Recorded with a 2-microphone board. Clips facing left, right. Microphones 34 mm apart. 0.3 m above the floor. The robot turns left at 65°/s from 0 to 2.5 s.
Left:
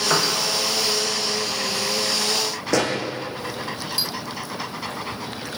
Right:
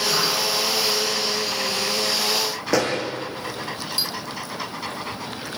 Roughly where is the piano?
Left.